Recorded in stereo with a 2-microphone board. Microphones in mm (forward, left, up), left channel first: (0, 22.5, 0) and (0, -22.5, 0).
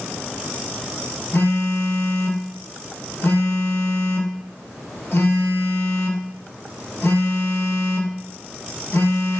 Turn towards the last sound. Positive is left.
turn(degrees=70)  # may be behind; listen again after turning